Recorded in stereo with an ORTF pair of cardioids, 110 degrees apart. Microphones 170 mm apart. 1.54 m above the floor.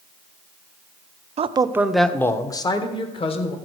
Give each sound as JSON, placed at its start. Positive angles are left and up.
{"t": 1.4, "sound": "a man speaking", "azimuth_deg": -40, "distance_m": 0.7}